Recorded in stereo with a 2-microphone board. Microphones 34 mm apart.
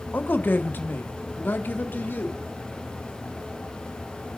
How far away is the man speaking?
About 1.2 m.